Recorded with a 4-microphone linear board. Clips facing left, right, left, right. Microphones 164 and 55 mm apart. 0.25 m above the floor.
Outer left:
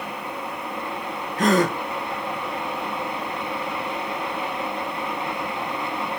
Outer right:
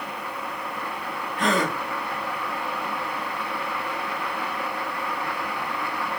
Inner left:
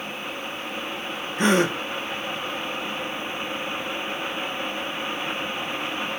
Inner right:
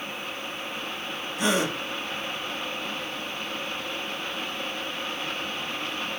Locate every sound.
1.4 s a gasp: 40° left (ahead or behind), 0.6 m